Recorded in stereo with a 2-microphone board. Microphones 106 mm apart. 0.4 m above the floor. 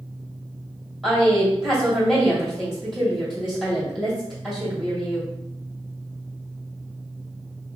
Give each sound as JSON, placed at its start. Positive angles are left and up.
{"t": 1.0, "sound": "a woman speaking", "side_deg": -5, "distance_m": 2.0}